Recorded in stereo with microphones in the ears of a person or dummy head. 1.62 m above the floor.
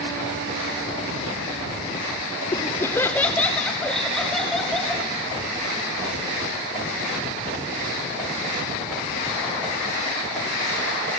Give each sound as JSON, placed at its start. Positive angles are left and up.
{"t": 2.5, "sound": "laughter", "side_deg": 20, "distance_m": 0.8}